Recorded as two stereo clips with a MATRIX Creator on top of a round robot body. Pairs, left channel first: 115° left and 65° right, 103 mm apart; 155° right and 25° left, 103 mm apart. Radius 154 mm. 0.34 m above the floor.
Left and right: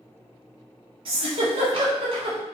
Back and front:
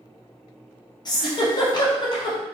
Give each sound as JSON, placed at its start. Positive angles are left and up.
{"t": 1.1, "sound": "a giggle", "azimuth_deg": -105, "distance_m": 0.7}